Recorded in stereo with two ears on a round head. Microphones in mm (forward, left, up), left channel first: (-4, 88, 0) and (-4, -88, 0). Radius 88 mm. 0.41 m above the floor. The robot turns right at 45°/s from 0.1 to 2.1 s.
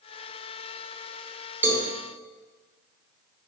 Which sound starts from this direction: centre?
A cowbell, at 1.6 s.